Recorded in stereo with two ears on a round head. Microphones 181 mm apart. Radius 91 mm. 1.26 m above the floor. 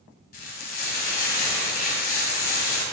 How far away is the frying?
About 1.6 m.